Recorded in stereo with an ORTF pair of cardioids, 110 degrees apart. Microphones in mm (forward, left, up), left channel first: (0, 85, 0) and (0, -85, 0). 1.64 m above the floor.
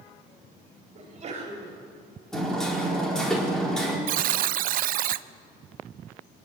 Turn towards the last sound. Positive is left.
turn(degrees=-60)